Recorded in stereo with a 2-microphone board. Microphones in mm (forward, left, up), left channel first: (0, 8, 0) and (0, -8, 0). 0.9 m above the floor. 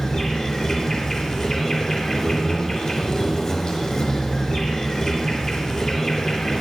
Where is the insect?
35° left (ahead or behind), 4 m.